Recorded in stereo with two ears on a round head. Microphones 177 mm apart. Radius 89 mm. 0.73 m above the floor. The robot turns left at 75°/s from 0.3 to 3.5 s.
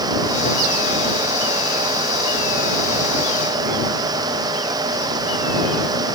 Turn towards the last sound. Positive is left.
No sound to turn to.